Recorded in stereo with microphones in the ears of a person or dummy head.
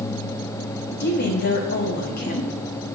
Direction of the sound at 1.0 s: 55° left (ahead or behind).